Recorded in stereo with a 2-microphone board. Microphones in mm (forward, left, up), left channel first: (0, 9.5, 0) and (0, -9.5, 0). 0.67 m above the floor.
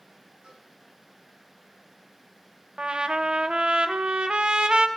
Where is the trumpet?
55° right (ahead or behind), 0.8 m.